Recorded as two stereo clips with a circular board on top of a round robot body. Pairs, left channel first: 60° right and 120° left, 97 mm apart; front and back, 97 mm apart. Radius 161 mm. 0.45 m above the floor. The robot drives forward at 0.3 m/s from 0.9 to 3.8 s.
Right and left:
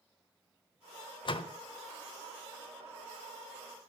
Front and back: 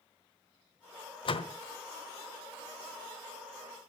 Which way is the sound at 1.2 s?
25° right.